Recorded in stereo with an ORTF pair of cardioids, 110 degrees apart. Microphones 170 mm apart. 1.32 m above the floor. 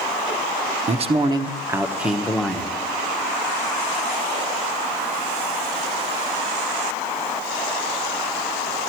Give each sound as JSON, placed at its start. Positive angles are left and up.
{"t": 0.9, "sound": "a man speaking", "azimuth_deg": -40, "distance_m": 1.0}